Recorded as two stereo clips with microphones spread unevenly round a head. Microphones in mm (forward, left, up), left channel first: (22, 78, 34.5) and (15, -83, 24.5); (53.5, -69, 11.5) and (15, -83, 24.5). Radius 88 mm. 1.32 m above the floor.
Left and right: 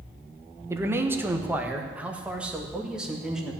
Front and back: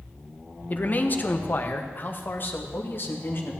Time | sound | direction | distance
0.7 | a man speaking | 20° right | 1.4 m